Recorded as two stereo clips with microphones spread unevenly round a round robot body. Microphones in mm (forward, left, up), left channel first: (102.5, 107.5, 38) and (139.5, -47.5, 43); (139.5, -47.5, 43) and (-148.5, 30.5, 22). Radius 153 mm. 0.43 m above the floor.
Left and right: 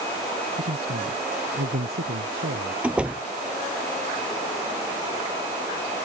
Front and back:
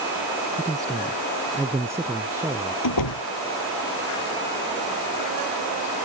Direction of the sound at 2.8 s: 5° left.